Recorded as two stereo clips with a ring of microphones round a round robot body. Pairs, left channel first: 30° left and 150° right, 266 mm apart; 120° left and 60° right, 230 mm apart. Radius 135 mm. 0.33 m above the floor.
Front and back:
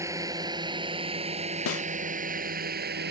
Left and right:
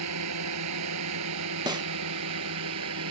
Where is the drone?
70° right; by 3.1 s 95° right.